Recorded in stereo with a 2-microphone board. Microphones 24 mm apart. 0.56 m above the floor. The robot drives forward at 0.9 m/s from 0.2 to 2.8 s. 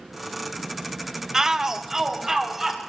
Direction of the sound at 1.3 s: 20° right (ahead or behind).